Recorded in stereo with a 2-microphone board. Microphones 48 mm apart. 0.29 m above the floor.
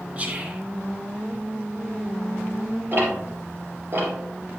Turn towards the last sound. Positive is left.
turn(degrees=-45)  # may be behind; listen again after turning